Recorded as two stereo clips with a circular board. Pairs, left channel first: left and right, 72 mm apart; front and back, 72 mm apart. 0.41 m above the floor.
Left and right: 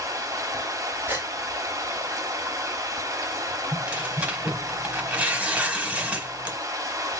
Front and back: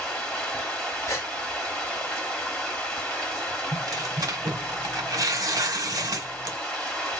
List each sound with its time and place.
0.0 s running water: 80° right, 2.0 m
1.1 s a gasp: 40° right, 1.1 m
3.7 s tearing paper: 155° right, 1.1 m